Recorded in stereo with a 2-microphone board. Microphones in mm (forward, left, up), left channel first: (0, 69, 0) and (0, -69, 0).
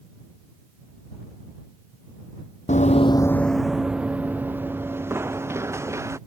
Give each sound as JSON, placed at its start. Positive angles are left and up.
{"t": 2.7, "sound": "running footsteps", "side_deg": 65}